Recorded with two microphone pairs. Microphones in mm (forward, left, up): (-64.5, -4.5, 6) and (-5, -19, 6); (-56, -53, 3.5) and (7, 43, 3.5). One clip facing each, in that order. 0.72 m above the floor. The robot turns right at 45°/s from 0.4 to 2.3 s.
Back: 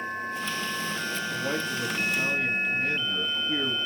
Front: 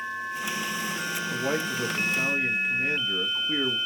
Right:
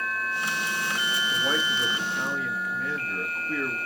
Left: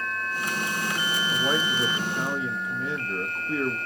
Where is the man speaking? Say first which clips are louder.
Front 4 dB, left 3 dB; 10° right, 0.7 m; by 3.8 s 35° left, 0.7 m.